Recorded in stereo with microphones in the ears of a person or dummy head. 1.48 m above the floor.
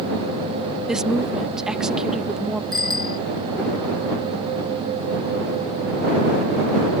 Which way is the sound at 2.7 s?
25° right (ahead or behind).